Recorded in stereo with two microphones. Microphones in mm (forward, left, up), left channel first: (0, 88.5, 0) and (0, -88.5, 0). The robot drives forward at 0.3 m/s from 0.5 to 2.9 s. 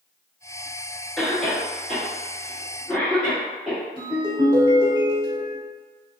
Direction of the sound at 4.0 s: 20° right (ahead or behind).